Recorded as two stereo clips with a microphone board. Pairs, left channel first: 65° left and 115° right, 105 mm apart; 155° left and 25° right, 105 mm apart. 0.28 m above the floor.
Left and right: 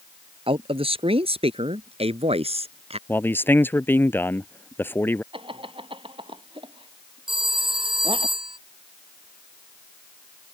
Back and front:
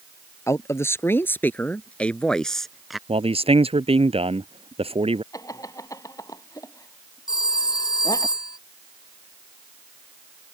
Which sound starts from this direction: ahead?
A man speaking, at 3.1 s.